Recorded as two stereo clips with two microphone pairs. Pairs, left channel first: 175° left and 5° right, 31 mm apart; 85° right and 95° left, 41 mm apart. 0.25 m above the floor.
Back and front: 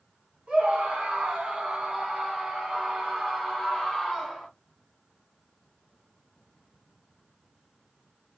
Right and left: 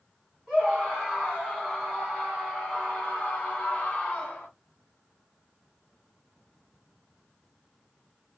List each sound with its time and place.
0.5 s a scream: 20° left, 1.8 m; by 4.5 s 125° right, 1.7 m